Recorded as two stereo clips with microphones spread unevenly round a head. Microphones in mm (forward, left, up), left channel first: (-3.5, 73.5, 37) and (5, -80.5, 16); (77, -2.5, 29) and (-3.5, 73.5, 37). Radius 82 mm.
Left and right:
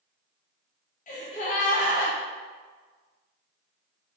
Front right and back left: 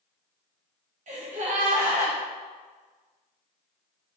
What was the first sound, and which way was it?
A gasp, 135° left.